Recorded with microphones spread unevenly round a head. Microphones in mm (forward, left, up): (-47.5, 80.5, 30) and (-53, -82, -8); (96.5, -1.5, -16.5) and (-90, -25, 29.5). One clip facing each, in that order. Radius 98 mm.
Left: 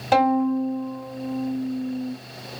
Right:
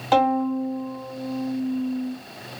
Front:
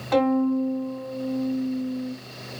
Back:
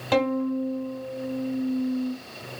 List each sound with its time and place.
0.1 s a violin: 155° left, 3 m